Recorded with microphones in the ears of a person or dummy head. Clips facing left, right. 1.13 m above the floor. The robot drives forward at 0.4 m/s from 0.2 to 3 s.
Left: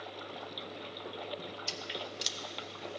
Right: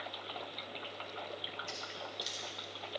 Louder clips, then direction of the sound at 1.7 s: Left 4 dB; 55° left (ahead or behind).